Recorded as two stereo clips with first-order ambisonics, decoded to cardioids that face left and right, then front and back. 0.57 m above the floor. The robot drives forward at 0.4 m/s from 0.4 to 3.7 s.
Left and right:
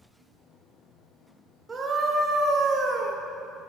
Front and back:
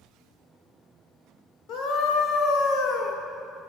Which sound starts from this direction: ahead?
A scream, at 1.7 s.